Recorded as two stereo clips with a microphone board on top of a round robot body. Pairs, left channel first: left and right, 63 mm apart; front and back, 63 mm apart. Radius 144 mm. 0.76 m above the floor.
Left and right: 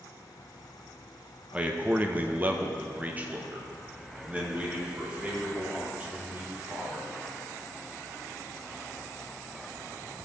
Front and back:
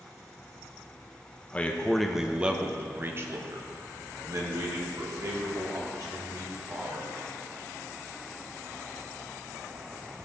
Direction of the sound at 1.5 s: 40° right.